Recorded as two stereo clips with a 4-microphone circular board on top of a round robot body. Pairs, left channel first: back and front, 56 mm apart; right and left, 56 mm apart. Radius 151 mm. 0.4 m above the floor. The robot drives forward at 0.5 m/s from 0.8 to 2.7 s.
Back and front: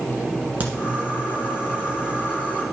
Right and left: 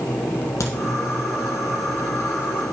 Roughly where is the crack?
Ahead right.